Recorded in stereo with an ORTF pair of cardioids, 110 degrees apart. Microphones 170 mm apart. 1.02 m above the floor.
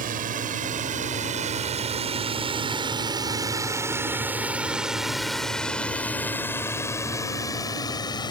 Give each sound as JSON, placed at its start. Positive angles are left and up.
{"t": 0.0, "sound": "a drone", "azimuth_deg": -60}